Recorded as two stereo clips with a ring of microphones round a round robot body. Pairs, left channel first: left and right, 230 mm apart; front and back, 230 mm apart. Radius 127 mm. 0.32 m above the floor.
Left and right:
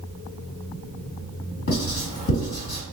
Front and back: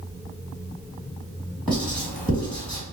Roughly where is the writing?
Left.